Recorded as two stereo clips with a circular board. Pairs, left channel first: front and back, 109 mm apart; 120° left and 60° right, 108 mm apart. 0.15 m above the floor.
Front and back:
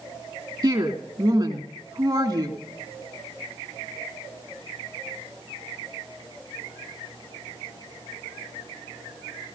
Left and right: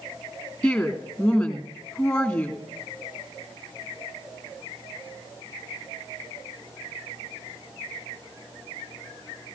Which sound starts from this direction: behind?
A woman speaking, at 0.6 s.